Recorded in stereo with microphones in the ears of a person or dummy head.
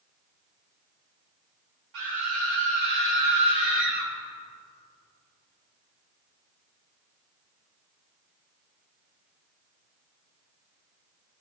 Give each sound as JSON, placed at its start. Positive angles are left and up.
{"t": 1.9, "sound": "a scream", "side_deg": -80, "distance_m": 7.5}